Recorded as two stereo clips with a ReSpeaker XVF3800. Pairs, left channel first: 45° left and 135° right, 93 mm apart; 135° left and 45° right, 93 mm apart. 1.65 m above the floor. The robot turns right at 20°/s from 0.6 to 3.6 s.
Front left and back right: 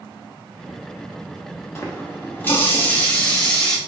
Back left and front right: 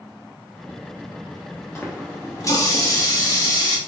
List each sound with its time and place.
1.8 s a running tap: 90° left, 0.9 m; by 3.8 s 125° left, 0.9 m